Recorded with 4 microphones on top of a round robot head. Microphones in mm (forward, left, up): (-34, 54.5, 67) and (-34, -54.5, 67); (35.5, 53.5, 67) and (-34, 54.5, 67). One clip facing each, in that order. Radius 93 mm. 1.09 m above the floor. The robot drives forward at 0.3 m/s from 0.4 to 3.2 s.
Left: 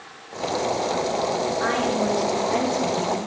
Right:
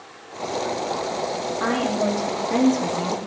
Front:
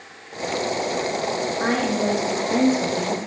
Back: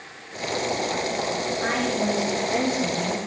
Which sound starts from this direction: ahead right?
A woman speaking, at 1.6 s.